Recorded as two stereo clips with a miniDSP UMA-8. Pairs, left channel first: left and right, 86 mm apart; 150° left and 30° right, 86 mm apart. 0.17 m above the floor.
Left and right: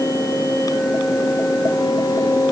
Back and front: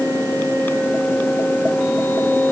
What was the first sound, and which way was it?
Only background noise.